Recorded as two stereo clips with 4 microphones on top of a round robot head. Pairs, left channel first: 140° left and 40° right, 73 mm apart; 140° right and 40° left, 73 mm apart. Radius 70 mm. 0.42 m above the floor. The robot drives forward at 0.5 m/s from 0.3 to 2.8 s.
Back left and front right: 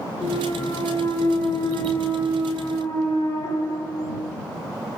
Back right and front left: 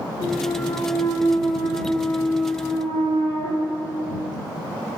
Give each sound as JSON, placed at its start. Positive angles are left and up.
{"t": 0.2, "sound": "a clunk", "azimuth_deg": -175, "distance_m": 3.0}